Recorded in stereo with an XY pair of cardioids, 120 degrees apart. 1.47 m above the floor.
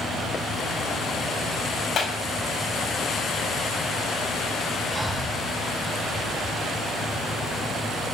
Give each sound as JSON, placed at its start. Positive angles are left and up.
{"t": 2.0, "sound": "a clap", "azimuth_deg": 50, "distance_m": 6.0}
{"t": 4.9, "sound": "breathing", "azimuth_deg": 5, "distance_m": 6.0}